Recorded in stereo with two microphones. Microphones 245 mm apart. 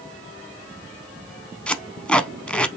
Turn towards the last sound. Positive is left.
turn(degrees=5)  # may be behind; listen again after turning